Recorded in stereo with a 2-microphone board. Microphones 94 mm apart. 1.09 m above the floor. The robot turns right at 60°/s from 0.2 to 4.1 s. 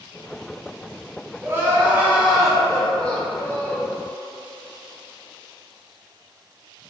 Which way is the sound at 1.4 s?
25° right (ahead or behind).